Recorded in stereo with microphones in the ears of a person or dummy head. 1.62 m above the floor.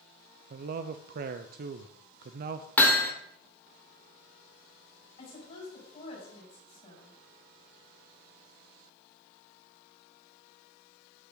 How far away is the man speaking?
About 0.5 m.